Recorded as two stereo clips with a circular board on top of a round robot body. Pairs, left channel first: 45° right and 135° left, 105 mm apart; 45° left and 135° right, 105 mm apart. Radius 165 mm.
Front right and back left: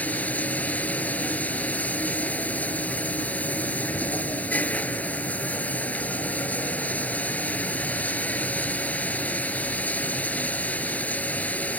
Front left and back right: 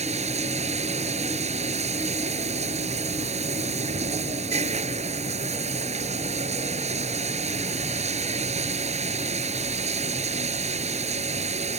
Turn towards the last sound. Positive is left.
turn(degrees=-120)